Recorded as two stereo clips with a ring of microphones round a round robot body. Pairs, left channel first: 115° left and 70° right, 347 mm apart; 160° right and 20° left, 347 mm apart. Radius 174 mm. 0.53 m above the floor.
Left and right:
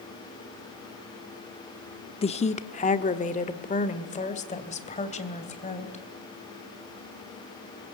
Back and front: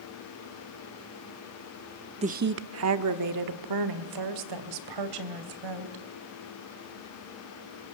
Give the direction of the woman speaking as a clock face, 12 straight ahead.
10 o'clock.